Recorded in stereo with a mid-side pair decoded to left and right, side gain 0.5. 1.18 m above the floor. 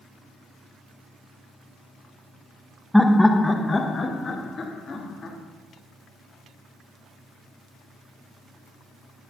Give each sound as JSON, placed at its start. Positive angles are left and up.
{"t": 2.9, "sound": "laughter", "azimuth_deg": 5, "distance_m": 0.7}